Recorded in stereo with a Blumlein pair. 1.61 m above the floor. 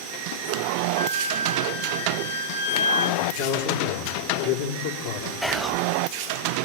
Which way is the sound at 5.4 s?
Straight ahead.